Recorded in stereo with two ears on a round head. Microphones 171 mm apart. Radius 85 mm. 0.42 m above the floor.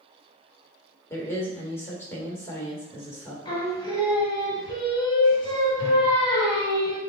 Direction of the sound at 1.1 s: 15° left (ahead or behind).